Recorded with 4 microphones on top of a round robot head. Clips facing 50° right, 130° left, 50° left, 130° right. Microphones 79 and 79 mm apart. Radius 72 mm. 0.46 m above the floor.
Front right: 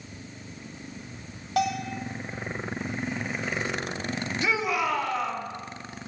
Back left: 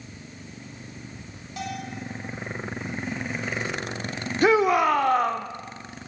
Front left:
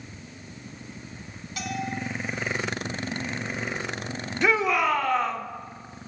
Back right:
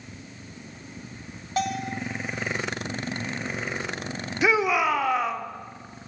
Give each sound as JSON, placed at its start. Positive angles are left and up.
{"t": 1.6, "sound": "a bell", "azimuth_deg": -75, "distance_m": 2.0}
{"t": 4.4, "sound": "a shout", "azimuth_deg": 150, "distance_m": 1.1}